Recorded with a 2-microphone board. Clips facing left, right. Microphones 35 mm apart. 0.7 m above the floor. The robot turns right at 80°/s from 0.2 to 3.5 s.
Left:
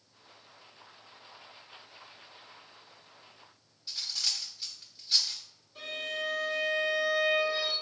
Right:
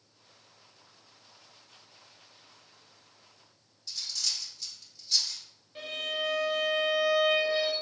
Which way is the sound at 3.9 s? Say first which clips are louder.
Left 1 dB; 25° left (ahead or behind).